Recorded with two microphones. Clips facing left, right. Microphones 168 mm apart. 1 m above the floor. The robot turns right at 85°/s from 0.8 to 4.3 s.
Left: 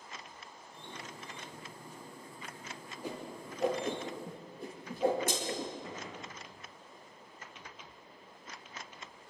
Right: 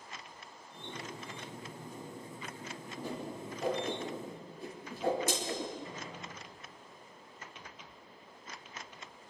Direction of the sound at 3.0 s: 10° left (ahead or behind).